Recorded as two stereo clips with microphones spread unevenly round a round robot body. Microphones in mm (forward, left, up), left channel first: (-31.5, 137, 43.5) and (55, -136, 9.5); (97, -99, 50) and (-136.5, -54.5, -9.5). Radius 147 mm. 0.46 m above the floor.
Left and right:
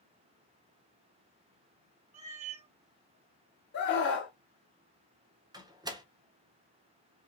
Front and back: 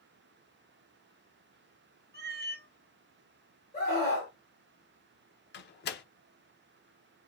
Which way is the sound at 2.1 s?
140° right.